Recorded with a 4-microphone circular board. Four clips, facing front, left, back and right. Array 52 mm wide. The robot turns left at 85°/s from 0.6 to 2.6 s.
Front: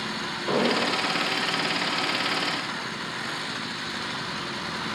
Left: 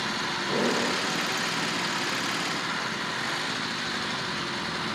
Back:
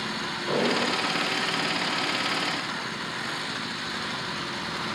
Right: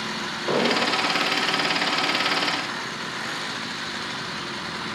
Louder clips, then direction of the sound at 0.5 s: Right 5 dB, front 1 dB; 75° right.